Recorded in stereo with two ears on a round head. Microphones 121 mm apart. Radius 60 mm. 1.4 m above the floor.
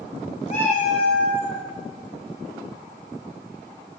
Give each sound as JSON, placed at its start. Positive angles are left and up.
{"t": 0.5, "sound": "a cat meowing", "side_deg": 60, "distance_m": 2.0}